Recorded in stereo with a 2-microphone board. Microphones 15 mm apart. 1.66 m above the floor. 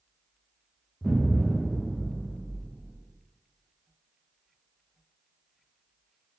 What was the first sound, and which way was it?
An explosion, centre (ahead or behind).